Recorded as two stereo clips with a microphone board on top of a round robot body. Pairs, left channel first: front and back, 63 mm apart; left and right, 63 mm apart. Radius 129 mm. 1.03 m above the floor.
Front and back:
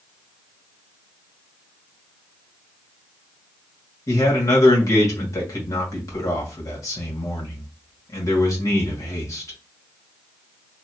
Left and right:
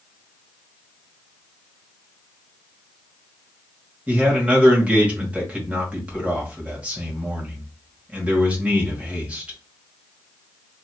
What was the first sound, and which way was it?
A man speaking, 20° right.